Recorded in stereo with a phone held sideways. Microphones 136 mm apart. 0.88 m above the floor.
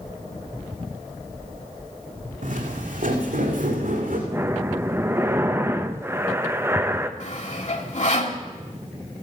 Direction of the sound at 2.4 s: 75° right (ahead or behind).